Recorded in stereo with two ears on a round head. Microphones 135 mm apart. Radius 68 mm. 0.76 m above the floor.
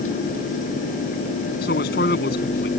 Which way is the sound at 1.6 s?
75° left (ahead or behind).